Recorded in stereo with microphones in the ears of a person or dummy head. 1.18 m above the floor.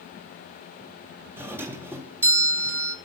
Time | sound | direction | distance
1.4 | a doorbell | 15° right (ahead or behind) | 0.9 m